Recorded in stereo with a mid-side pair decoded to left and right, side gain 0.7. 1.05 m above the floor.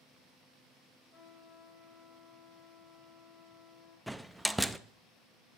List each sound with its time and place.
1.1 s a trumpet: 30° left, 4 m
4.1 s a door slam: 5° right, 0.5 m